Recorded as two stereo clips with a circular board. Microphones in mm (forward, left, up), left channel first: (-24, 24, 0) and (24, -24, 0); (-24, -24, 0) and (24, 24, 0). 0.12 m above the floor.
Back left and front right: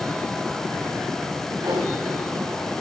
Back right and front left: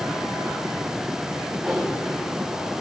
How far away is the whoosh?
About 5 m.